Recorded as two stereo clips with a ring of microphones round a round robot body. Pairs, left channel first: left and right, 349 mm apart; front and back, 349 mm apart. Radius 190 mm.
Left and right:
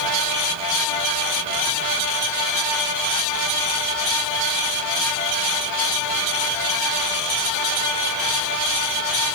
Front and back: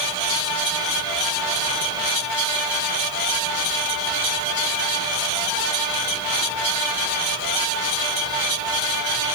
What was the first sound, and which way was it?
Only background noise.